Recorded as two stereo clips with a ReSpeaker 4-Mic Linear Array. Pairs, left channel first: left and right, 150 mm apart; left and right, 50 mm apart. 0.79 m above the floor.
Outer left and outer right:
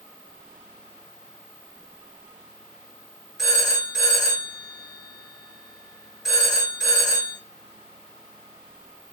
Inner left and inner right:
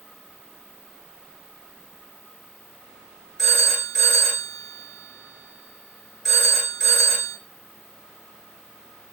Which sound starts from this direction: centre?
A phone ringing, at 3.4 s.